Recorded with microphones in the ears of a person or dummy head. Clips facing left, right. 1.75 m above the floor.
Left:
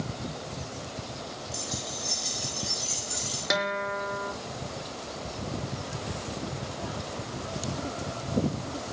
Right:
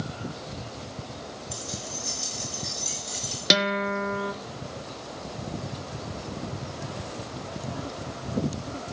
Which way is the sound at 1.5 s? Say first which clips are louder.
Even; 70° right (ahead or behind).